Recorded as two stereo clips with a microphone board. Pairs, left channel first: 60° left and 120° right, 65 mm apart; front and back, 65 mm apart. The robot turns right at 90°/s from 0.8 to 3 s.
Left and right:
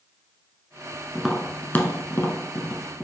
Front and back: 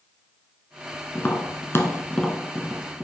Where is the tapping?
40° right, 0.9 m; by 3.0 s 125° left, 0.9 m.